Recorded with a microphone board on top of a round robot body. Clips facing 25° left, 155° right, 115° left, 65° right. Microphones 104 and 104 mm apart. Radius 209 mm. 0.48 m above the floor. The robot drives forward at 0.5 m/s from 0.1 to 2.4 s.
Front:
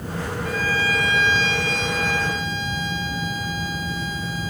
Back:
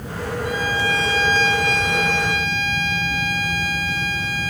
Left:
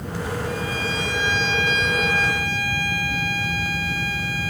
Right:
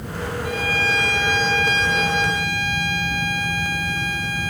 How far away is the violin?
About 0.7 m.